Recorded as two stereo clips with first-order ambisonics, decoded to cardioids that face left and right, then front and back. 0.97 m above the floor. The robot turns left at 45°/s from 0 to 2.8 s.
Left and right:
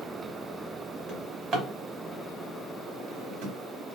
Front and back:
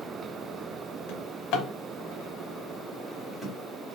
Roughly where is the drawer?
Ahead.